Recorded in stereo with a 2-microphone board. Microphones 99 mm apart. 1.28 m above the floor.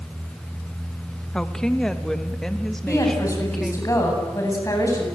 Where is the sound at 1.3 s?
5° left (ahead or behind), 1.7 m.